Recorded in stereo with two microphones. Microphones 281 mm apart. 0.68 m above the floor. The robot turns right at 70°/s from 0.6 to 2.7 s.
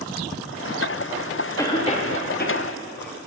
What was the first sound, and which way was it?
A cough, 10° left (ahead or behind).